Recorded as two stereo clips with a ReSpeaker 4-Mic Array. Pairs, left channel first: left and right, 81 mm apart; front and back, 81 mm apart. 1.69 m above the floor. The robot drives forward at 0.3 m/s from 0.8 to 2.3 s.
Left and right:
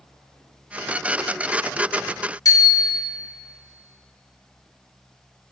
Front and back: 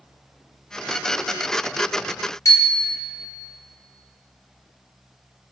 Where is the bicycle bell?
50° left, 3.5 m.